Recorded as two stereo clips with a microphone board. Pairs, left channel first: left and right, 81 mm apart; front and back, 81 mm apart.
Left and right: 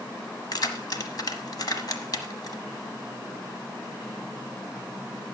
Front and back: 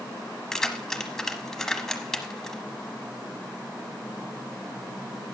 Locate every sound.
0.5 s keys jangling: 85° left, 1.2 m